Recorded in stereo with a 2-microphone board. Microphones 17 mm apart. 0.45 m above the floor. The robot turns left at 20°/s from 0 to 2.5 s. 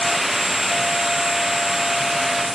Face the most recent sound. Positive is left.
No sound to turn to.